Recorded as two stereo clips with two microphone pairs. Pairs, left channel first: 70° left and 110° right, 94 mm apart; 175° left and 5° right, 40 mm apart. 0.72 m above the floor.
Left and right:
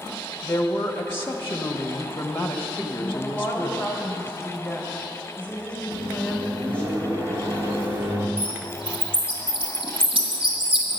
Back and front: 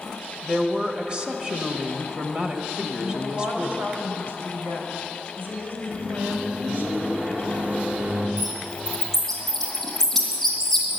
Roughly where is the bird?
Right.